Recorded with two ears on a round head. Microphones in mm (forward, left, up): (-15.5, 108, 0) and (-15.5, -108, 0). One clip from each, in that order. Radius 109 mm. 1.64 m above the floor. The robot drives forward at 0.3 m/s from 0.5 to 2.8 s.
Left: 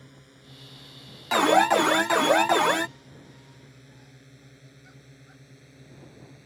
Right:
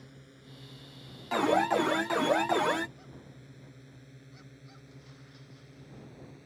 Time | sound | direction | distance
0.0 | a drone | 15° left (ahead or behind) | ?
1.3 | an alarm | 45° left (ahead or behind) | ?